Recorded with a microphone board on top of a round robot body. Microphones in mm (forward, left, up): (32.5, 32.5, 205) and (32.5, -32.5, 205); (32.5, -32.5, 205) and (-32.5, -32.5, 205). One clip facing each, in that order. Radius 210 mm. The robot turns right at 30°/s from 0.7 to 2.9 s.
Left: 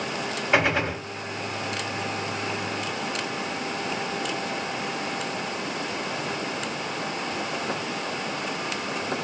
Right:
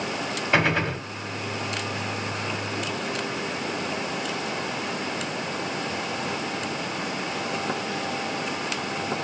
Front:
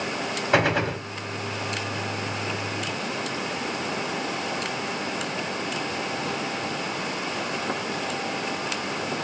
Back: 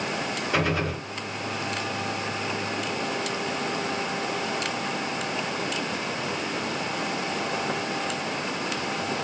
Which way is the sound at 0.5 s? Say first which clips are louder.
Even, front 5 dB; 10° left.